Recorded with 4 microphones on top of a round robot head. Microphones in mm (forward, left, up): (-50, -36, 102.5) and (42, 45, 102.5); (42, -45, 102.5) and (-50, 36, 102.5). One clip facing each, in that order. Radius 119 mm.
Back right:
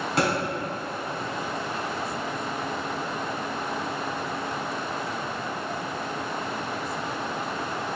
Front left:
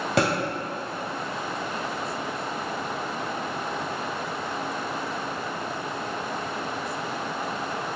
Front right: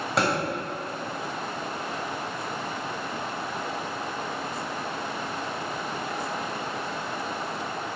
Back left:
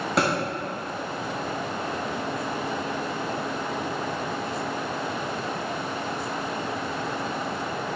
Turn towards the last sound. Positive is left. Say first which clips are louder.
# front left 2 dB, back left 1 dB
turn(degrees=50)